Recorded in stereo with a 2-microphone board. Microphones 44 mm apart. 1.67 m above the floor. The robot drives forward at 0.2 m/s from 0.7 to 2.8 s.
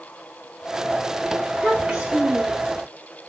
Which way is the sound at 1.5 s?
10° right (ahead or behind).